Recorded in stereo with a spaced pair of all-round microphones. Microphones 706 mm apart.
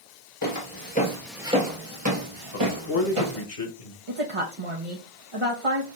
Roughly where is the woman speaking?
Right.